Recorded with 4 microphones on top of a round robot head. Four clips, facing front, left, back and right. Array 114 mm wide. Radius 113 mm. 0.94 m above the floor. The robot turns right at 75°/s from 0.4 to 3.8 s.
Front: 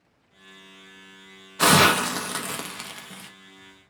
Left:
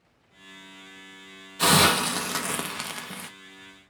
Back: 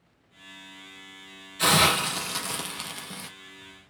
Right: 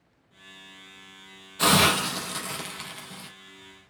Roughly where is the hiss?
Ahead.